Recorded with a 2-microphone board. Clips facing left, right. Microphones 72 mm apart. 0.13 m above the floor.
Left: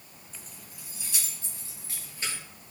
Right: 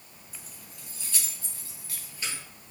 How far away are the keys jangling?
About 0.8 m.